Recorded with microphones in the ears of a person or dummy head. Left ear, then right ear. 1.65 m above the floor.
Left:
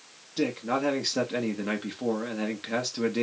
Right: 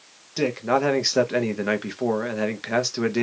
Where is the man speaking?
30° right (ahead or behind), 0.5 m.